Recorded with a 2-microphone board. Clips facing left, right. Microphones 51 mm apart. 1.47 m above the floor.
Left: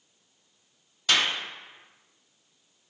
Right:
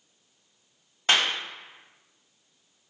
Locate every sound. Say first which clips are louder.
1.1 s a clap: right 1 dB; 30° right (ahead or behind), 2.5 m